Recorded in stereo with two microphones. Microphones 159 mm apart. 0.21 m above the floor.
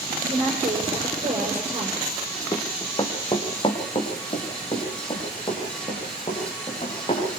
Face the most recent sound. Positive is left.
turn(degrees=35)  # may be behind; listen again after turning